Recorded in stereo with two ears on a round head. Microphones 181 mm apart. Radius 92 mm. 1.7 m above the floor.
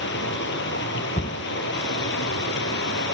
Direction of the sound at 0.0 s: 60° left (ahead or behind).